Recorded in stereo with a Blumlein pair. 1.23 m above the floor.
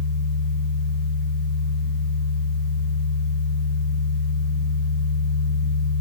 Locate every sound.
0.0 s a fan: 30° left, 1.1 m